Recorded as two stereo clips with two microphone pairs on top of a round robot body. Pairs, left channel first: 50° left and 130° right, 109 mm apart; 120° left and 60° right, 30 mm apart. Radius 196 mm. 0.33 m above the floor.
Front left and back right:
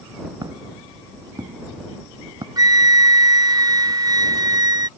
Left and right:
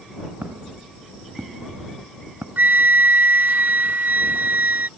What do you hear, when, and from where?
0.4 s footsteps: 70° right; by 2.5 s 75° right
2.6 s a flute: 75° right